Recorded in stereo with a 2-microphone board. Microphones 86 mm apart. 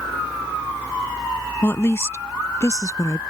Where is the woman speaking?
25° left (ahead or behind); by 3.2 s 35° left (ahead or behind).